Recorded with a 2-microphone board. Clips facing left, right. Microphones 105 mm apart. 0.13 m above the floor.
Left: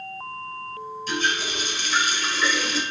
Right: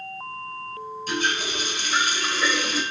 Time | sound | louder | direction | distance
1.1 | a running tap | even | 50° right (ahead or behind) | 1.7 m